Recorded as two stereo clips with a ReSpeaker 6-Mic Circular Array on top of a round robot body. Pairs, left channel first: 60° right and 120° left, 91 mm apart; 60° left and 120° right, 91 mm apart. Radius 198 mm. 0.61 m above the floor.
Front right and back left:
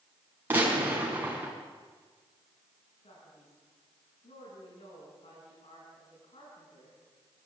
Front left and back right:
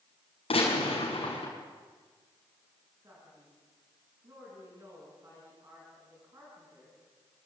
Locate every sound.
0.5 s a gunshot: 50° left, 6 m
3.0 s a man speaking: 60° right, 9 m